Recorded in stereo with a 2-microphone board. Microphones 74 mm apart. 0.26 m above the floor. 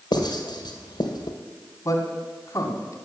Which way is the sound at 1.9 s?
50° left (ahead or behind).